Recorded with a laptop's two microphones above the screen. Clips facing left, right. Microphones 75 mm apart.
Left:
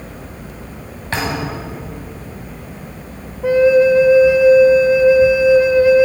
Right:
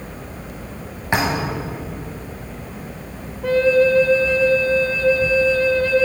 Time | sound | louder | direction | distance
1.1 | a thud | right 1 dB | 20° right (ahead or behind) | 1.7 m
3.4 | a flute | left 4 dB | 15° left (ahead or behind) | 0.6 m